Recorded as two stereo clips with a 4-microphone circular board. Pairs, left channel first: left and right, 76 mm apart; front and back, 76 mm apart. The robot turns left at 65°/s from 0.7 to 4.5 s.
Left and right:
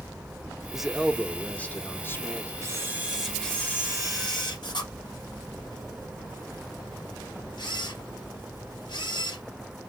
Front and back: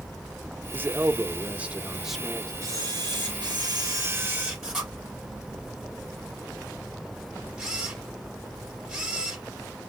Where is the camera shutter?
135° right, 2.5 m; by 9.4 s 100° left, 2.5 m.